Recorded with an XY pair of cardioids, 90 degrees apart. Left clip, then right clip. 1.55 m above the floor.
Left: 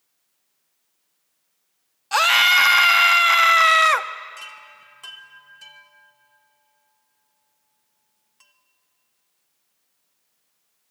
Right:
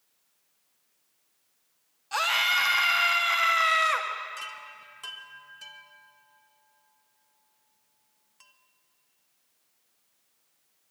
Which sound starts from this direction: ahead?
A chime, at 4.4 s.